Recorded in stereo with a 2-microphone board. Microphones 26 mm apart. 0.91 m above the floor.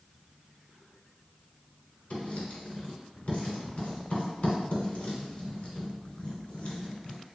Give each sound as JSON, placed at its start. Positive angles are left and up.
{"t": 2.1, "sound": "writing", "side_deg": 55, "distance_m": 1.3}